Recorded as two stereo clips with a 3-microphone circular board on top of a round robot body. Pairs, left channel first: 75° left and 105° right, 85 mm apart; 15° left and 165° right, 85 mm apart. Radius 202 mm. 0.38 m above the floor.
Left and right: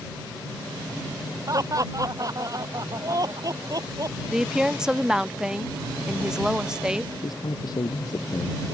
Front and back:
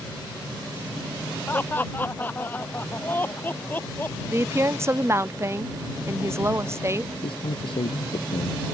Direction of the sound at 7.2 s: 35° left.